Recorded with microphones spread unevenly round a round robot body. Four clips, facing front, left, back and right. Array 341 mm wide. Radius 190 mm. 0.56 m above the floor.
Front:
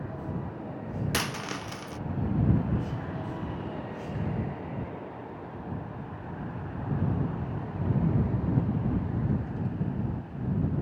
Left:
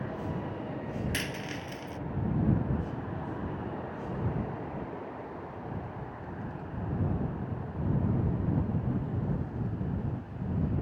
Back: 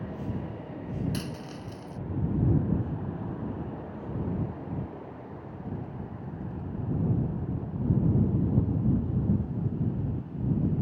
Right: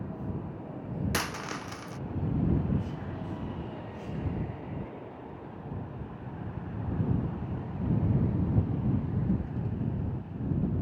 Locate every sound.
1.1 s a dropped coin: 20° right